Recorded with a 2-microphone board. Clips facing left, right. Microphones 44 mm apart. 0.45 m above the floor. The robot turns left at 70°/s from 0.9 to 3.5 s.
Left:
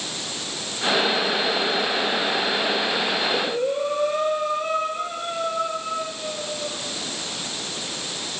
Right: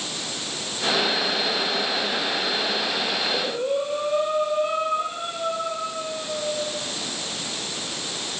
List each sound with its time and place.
3.2 s breathing: 30° left (ahead or behind), 5.5 m; by 6.7 s 55° left (ahead or behind), 5.5 m